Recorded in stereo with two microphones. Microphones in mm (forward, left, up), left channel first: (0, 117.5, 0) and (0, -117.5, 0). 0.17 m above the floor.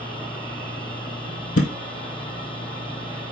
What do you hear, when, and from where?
1.6 s a thud: 85° left, 1.2 m